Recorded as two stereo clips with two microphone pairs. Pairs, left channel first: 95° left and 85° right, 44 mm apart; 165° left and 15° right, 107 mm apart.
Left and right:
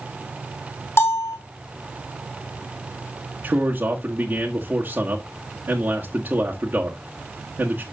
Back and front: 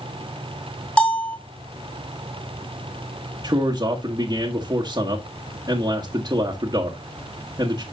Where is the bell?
85° left, 3.5 m.